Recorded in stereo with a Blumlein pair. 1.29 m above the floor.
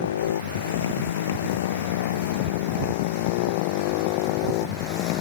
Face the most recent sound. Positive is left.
turn(degrees=40)